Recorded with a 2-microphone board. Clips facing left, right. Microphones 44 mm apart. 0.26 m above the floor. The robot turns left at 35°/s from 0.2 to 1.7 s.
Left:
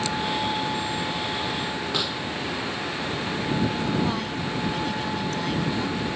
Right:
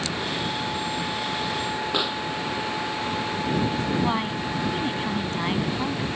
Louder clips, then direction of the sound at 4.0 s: Right 2 dB; 30° right (ahead or behind).